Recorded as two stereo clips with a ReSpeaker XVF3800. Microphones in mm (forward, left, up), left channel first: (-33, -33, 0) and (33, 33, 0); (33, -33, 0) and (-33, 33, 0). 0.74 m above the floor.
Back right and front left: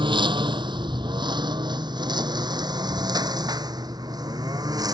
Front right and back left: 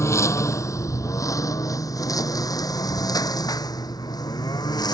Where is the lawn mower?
15° left; by 4.9 s straight ahead.